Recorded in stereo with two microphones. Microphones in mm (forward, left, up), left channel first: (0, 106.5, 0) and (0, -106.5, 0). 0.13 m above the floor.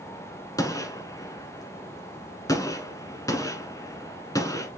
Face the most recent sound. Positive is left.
turn(degrees=15)  # may be behind; listen again after turning